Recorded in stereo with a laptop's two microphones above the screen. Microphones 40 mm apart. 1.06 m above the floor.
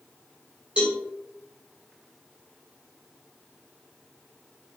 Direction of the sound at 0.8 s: 25° right (ahead or behind).